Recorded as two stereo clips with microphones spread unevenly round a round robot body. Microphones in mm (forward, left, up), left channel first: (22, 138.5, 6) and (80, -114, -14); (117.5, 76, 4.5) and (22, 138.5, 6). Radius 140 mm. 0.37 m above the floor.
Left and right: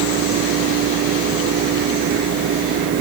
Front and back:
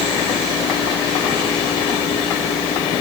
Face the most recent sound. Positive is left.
No sound to turn to.